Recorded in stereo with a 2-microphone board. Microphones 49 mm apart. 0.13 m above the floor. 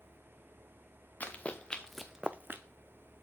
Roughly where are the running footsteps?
Left.